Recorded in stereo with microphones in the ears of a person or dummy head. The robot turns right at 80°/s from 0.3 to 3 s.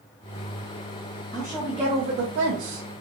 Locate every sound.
1.3 s a woman speaking: 160° left, 1.1 m; by 2.9 s 80° right, 1.1 m